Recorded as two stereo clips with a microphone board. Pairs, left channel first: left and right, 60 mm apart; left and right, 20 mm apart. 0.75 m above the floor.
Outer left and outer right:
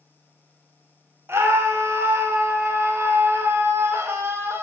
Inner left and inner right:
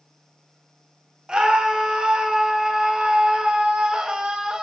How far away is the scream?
About 0.5 m.